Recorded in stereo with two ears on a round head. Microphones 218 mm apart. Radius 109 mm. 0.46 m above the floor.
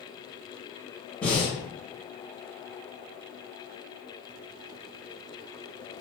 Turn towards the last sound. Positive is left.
turn(degrees=5)  # may be behind; listen again after turning